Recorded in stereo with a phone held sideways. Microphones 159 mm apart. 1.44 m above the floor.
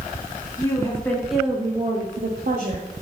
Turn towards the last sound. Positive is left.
turn(degrees=-75)  # may be behind; listen again after turning